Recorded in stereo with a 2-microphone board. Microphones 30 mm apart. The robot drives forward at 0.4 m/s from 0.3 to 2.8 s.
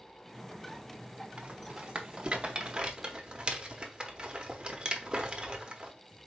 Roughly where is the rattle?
Right.